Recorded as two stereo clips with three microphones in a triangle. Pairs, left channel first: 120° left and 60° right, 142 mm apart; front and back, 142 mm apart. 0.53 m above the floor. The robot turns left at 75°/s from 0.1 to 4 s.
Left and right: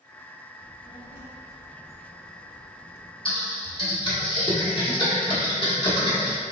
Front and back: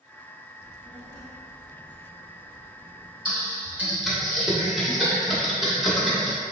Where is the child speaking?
130° left, 0.9 m; by 3.1 s 65° right, 0.9 m.